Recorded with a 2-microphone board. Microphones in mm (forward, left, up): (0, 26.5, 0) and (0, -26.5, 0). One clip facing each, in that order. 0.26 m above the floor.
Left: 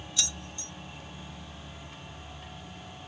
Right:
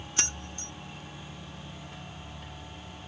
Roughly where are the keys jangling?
Right.